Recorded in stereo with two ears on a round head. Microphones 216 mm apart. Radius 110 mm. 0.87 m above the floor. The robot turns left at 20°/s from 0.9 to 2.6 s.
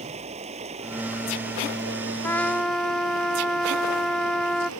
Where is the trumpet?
10° left (ahead or behind); by 4.7 s centre (ahead or behind).